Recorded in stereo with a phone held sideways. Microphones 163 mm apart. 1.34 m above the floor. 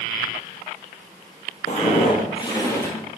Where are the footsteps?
45° left (ahead or behind), 1.9 m; by 3.0 s 15° left (ahead or behind), 1.5 m.